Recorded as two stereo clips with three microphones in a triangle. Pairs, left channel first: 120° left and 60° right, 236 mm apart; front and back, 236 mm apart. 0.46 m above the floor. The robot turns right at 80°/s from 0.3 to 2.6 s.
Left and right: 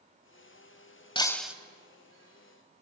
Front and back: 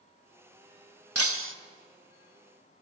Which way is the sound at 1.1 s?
175° right.